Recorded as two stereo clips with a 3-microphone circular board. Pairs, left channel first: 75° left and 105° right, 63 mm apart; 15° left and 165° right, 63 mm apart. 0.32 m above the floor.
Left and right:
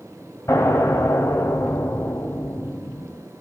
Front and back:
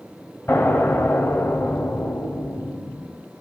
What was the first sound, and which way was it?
An explosion, 60° left.